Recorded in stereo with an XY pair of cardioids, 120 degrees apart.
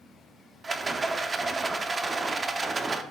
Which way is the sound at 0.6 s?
20° right.